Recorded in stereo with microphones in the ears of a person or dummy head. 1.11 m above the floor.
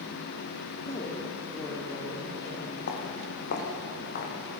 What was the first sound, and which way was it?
A woman speaking, 25° left (ahead or behind).